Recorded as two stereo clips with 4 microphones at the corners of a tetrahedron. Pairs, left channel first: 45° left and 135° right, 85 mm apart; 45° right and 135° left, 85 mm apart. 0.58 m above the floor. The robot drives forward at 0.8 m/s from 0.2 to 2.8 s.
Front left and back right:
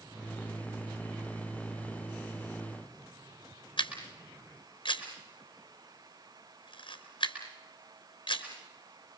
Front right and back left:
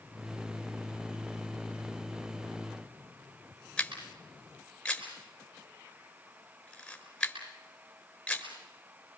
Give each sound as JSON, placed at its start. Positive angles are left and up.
{"t": 3.8, "sound": "a camera shutter", "azimuth_deg": 35, "distance_m": 4.0}